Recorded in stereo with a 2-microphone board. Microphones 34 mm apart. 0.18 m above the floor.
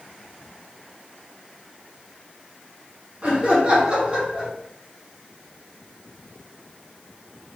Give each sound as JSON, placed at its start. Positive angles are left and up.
{"t": 3.2, "sound": "laughter", "side_deg": -35, "distance_m": 1.9}